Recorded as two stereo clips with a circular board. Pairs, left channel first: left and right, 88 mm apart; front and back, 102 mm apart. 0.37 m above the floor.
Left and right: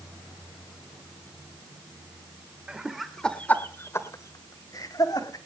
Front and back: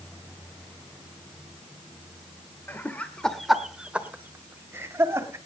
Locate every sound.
2.7 s laughter: 30° right, 1.3 m; by 5.4 s 120° left, 2.5 m